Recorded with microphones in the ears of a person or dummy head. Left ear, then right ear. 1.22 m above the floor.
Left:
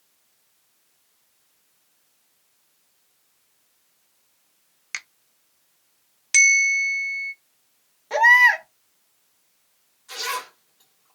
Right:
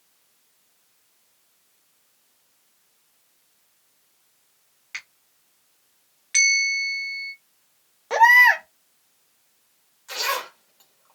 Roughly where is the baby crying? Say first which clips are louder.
Right 1 dB; right.